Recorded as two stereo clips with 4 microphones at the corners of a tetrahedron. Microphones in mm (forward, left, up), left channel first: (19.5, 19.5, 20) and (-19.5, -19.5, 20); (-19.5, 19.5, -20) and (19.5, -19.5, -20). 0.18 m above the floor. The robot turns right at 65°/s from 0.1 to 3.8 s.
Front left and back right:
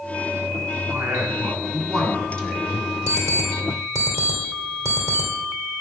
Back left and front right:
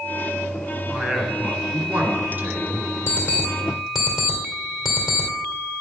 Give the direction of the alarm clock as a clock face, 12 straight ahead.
6 o'clock.